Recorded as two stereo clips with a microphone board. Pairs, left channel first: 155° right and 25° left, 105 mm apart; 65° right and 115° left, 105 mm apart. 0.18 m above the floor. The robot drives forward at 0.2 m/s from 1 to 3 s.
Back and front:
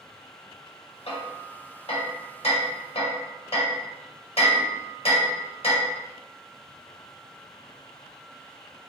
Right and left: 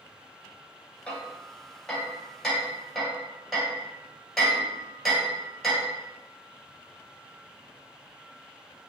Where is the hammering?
150° right, 1.3 m; by 5.9 s 155° right, 1.7 m.